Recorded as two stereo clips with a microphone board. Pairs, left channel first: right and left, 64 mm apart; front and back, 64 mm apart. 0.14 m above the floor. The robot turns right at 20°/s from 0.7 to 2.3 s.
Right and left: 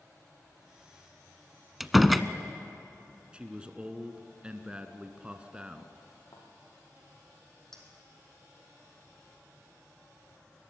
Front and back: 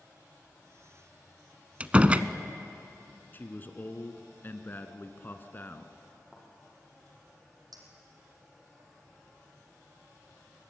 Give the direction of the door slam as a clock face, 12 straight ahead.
6 o'clock.